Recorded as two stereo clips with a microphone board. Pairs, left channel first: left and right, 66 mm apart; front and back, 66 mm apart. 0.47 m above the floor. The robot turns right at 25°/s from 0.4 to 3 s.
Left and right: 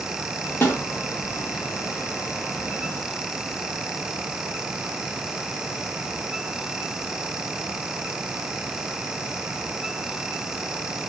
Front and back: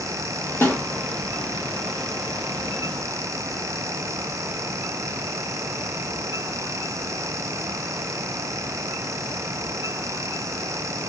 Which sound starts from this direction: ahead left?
A snare drum, at 0.6 s.